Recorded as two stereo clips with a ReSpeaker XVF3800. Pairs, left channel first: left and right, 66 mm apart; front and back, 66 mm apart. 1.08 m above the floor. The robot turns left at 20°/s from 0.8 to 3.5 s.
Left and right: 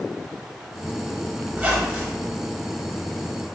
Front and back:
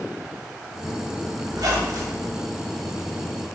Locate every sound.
1.5 s a squeak: 155° right, 0.8 m; by 2.3 s 170° right, 0.8 m